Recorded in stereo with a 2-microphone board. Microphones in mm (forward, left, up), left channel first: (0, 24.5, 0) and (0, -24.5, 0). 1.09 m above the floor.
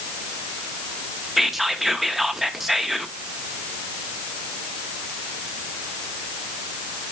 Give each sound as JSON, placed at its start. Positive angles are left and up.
{"t": 1.4, "sound": "whispering", "side_deg": -5, "distance_m": 1.3}